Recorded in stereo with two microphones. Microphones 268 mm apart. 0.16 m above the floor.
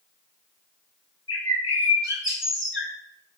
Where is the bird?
45° left (ahead or behind), 0.8 m.